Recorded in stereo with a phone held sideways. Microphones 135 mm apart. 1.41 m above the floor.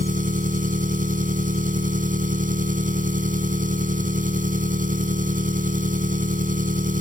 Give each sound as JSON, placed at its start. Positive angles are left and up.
{"t": 0.0, "sound": "an engine running", "side_deg": -85}